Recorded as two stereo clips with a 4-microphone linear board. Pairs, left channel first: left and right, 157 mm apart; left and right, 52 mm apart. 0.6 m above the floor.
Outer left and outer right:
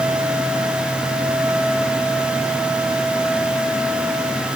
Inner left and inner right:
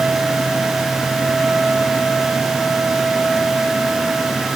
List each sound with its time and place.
Only background noise.